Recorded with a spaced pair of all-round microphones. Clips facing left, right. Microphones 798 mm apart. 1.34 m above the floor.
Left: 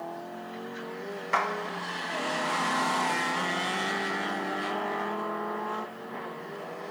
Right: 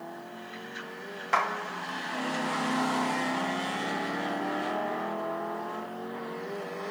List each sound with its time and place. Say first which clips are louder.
1.3 s a clap: right 1 dB; 30° right (ahead or behind), 1.0 m